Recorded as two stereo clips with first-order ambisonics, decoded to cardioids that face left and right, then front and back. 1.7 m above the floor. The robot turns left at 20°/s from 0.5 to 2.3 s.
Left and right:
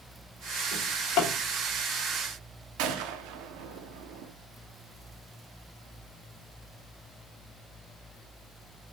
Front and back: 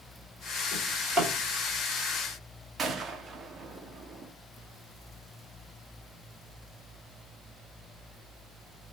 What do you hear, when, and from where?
0.7 s a drawer: 95° left, 2.5 m; by 1.3 s 85° left, 2.5 m
2.8 s a gunshot: 105° right, 0.7 m